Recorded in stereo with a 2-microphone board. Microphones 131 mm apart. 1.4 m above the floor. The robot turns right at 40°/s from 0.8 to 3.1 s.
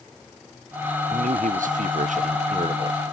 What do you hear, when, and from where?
1.1 s a man speaking: 115° right; by 3.1 s 35° right